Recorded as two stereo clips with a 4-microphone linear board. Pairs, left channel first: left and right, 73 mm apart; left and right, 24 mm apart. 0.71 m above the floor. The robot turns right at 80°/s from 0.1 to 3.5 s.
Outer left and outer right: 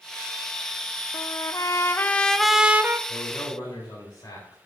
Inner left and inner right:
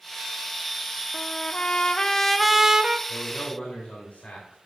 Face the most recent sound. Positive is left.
turn(degrees=70)